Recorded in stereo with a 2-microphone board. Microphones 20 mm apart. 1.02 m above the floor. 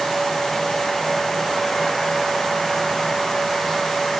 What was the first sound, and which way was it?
Only background noise.